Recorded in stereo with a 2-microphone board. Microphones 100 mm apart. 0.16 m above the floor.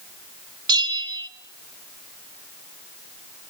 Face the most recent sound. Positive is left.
turn(degrees=-45)  # may be behind; listen again after turning